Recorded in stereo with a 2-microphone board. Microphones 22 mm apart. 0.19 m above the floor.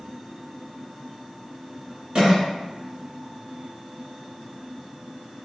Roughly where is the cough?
Right.